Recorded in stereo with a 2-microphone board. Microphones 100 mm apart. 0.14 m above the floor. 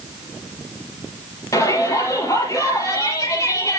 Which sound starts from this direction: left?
A shout, at 1.5 s.